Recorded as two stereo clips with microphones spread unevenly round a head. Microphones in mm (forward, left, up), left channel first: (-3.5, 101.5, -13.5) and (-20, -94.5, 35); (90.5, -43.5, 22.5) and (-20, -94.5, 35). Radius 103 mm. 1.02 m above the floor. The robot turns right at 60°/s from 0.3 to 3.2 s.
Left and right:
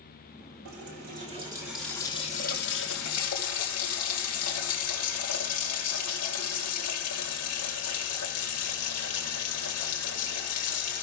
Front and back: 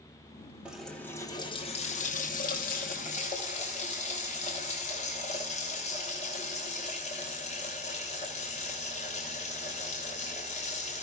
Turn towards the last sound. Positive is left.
turn(degrees=80)